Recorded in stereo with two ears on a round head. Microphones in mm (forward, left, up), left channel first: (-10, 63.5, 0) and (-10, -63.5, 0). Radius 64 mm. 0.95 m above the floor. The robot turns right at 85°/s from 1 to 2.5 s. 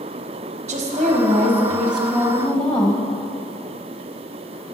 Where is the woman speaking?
85° right, 1.0 m; by 3.0 s 40° left, 1.0 m.